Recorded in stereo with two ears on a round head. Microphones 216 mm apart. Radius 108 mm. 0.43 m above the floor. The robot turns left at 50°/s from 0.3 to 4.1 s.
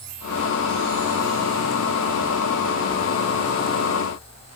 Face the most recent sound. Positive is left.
No sound to turn to.